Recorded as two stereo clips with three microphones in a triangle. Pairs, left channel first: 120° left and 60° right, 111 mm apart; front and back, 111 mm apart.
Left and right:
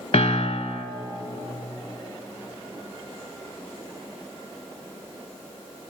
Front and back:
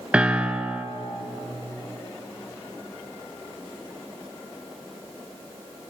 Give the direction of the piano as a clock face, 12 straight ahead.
9 o'clock.